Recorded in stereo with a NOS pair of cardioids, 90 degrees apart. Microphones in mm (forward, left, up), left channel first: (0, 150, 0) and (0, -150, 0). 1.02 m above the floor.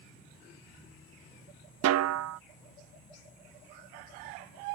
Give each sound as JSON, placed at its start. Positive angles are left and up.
{"t": 1.8, "sound": "a snare drum", "azimuth_deg": -65}